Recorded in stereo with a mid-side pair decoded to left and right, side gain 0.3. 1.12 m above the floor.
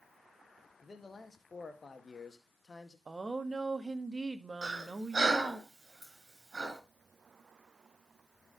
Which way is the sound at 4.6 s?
45° right.